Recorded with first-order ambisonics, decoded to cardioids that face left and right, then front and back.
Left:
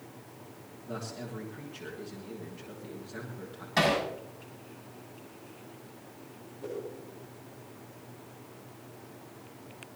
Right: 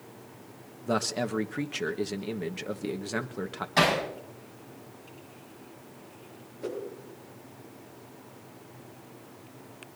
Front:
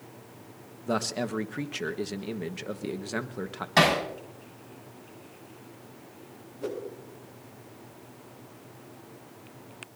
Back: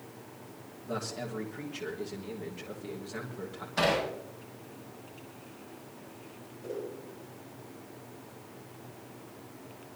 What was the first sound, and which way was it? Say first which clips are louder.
A man speaking: right 12 dB, front 7 dB; 50° right.